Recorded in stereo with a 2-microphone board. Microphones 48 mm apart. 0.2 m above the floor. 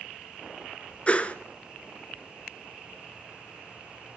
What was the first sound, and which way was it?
A whoosh, 30° left (ahead or behind).